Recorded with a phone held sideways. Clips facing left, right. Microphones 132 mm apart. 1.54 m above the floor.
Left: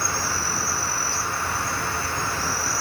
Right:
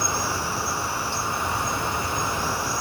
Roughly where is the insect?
Centre.